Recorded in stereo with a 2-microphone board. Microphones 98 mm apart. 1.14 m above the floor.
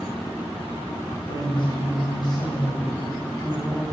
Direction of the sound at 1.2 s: 50° left (ahead or behind).